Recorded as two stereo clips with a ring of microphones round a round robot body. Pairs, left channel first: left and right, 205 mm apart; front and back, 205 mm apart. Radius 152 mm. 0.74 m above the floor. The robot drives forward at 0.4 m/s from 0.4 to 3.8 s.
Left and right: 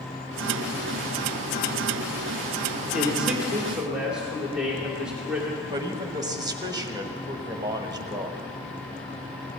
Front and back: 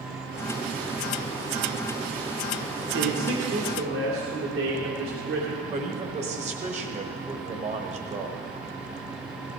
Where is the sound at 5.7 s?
150° right, 1.2 m.